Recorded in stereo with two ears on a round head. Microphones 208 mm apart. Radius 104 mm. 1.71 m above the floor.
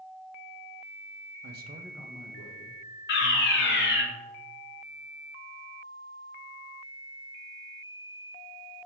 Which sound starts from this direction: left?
A fire alarm, at 3.1 s.